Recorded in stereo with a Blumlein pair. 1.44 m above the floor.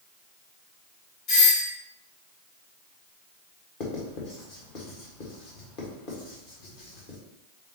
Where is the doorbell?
40° left, 2 m.